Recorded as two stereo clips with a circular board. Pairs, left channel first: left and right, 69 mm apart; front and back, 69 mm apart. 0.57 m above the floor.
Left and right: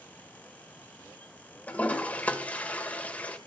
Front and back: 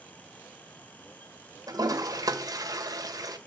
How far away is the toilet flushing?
About 1.7 m.